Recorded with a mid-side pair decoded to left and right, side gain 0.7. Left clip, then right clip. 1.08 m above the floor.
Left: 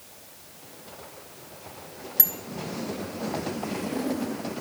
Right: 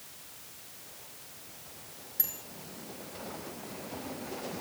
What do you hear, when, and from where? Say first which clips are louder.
2.2 s a bicycle bell: left 9 dB; 45° left, 3.5 m